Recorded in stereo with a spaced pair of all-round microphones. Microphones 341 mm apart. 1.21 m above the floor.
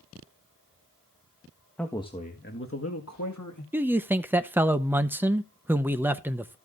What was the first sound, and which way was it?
A man speaking, 5° left (ahead or behind).